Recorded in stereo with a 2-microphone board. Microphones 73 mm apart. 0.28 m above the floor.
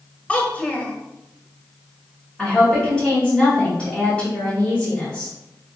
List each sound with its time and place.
0.3 s a child speaking: 20° left (ahead or behind), 0.8 m
2.4 s a woman speaking: 10° left (ahead or behind), 1.9 m